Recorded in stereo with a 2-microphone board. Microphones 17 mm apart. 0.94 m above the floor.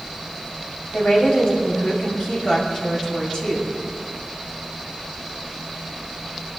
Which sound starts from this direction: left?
A woman speaking, at 0.9 s.